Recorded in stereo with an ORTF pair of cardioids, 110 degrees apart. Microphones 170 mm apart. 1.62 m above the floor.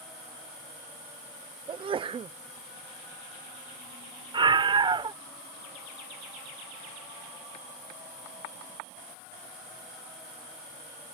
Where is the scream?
30° right.